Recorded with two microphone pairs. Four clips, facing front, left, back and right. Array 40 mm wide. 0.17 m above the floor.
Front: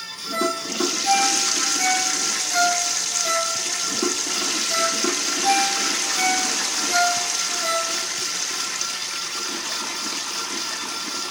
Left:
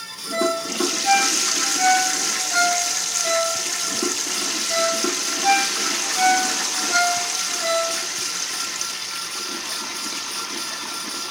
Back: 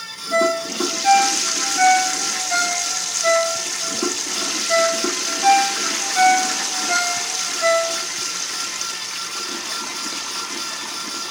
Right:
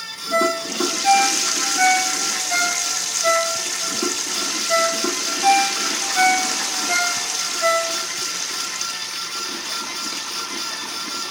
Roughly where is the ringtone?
Behind right.